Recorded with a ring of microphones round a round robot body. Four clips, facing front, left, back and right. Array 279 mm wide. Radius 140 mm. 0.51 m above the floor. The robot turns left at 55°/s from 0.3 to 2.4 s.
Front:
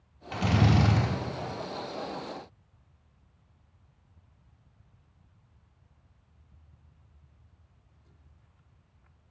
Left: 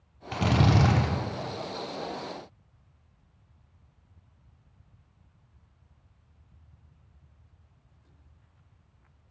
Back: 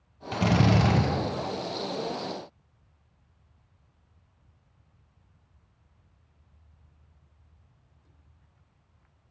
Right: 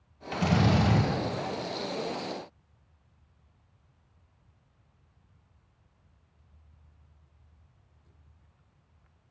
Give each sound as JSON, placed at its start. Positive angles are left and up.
{"t": 0.3, "sound": "a drill", "azimuth_deg": 140, "distance_m": 0.9}